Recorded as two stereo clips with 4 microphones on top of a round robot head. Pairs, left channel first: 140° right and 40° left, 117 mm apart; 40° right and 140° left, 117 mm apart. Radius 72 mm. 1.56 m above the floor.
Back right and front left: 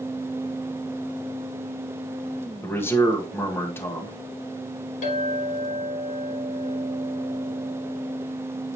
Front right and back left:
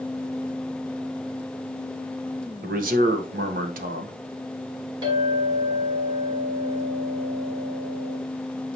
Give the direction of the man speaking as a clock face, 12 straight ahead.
7 o'clock.